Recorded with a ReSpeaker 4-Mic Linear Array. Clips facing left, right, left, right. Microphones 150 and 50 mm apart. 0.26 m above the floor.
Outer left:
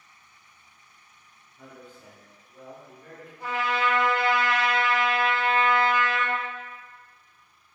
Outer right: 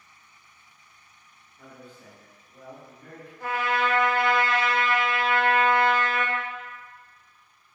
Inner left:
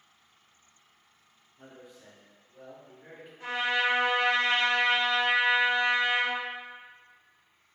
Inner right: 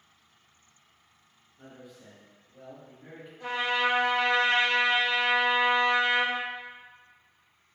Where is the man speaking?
15° left (ahead or behind), 1.8 m; by 3.3 s 5° left (ahead or behind), 2.5 m.